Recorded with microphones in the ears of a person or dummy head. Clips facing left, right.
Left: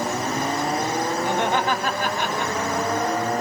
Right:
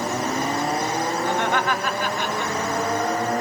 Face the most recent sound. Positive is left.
turn(degrees=60)  # may be behind; listen again after turning